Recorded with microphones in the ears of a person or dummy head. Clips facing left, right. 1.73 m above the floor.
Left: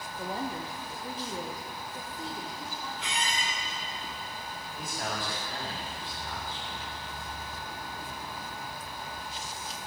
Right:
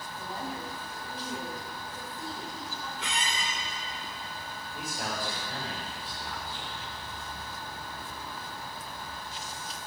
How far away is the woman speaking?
About 1.2 m.